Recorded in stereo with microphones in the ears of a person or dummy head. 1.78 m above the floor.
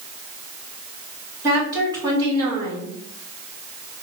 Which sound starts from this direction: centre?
A woman speaking, at 1.4 s.